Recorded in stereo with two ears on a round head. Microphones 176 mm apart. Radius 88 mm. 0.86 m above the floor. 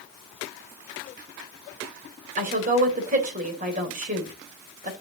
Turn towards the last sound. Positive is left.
turn(degrees=-45)  # may be behind; listen again after turning